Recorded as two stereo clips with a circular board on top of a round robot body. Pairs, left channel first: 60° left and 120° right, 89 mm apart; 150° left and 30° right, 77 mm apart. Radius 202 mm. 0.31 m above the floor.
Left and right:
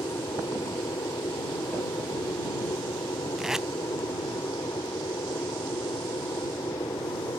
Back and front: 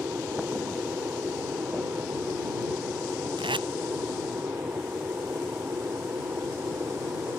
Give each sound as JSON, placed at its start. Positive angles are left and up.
{"t": 0.0, "sound": "an aircraft", "azimuth_deg": 25}
{"t": 3.4, "sound": "tape being pulled", "azimuth_deg": -35}